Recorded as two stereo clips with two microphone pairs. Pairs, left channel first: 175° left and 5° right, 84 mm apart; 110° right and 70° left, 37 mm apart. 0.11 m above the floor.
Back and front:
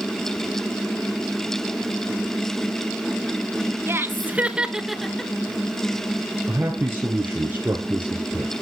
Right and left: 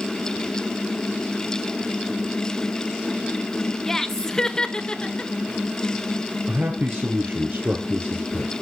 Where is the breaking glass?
I don't hear breaking glass.